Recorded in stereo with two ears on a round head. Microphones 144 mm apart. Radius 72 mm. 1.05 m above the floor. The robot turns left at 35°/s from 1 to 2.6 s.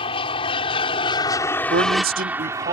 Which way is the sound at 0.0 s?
30° left (ahead or behind).